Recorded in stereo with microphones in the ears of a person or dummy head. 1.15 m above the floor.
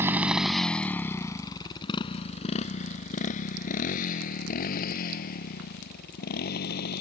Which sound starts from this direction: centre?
A motorcycle, at 0.0 s.